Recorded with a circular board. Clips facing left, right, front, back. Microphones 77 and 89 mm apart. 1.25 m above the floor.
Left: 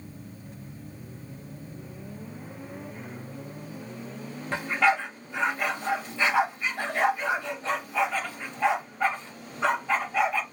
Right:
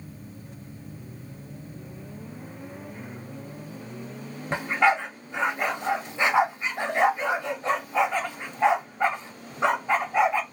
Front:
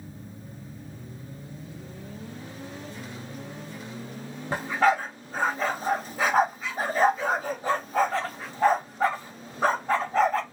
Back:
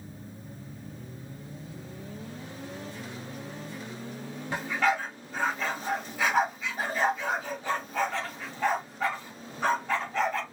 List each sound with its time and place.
4.5 s a dog barking: 30° right, 1.0 m